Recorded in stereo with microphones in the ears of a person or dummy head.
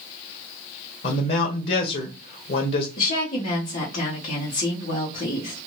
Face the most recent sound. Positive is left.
turn(degrees=50)  # may be behind; listen again after turning